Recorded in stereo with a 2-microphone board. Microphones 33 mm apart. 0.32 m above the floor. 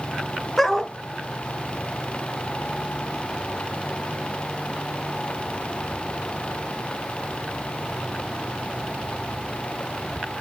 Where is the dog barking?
10° left (ahead or behind), 1.4 m.